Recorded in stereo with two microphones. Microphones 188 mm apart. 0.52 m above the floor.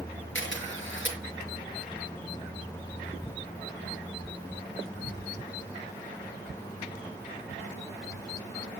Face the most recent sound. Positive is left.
turn(degrees=80)